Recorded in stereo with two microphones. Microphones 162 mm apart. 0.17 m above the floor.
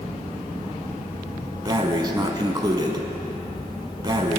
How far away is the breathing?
About 1.1 m.